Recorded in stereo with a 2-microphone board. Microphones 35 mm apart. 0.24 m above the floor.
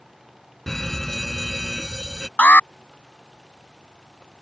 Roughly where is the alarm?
Left.